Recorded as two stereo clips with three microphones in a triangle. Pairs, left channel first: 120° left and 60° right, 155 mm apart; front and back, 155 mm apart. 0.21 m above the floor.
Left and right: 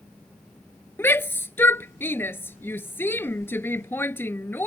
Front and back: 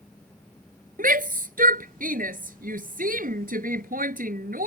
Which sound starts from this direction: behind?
A shout, at 1.0 s.